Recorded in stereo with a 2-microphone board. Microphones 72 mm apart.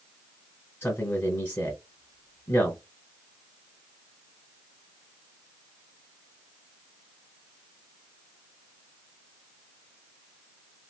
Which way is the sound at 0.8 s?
30° left (ahead or behind).